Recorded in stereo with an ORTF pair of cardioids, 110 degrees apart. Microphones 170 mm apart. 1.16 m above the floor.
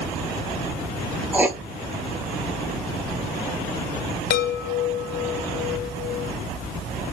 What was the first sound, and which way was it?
Writing, 10° right.